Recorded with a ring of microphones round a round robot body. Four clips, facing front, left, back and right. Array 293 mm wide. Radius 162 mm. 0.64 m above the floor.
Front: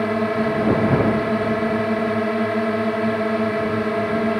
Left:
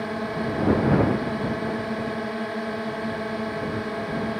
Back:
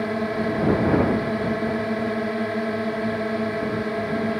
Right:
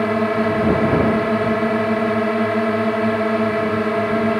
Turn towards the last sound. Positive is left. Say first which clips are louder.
# right 10 dB, front 4 dB
turn(degrees=-70)